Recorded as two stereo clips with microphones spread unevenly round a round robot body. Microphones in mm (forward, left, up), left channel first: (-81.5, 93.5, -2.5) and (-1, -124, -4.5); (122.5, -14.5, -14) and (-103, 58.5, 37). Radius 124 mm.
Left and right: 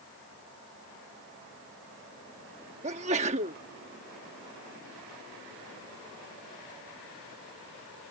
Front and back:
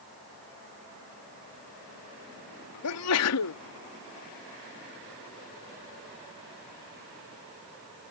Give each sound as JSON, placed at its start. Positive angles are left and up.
{"t": 2.8, "sound": "a sneeze", "azimuth_deg": -5}